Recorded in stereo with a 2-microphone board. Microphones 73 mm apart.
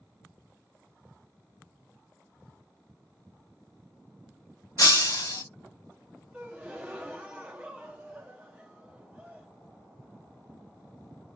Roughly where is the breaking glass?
Left.